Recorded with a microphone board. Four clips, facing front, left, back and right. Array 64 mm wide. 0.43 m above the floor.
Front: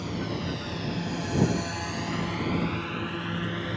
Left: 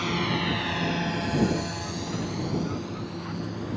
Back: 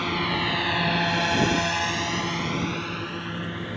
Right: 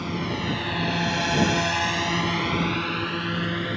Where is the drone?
160° left; by 3.8 s 85° right.